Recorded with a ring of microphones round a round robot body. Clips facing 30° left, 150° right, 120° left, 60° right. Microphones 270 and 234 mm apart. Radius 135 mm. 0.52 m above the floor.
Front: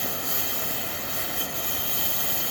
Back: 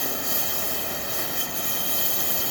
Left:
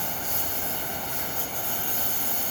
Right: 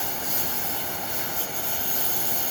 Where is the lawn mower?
105° right.